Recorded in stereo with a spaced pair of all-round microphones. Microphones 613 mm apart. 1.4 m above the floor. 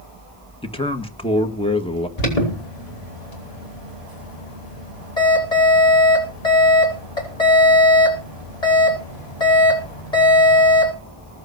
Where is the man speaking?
10° left (ahead or behind), 1.6 m.